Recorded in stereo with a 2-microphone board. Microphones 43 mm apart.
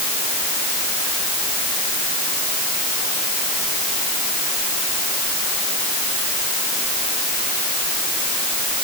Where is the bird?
I don't hear a bird.